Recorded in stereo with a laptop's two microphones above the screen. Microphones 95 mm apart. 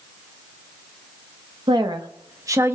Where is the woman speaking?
55° right (ahead or behind), 0.9 m; by 2.8 s 25° right (ahead or behind), 0.6 m.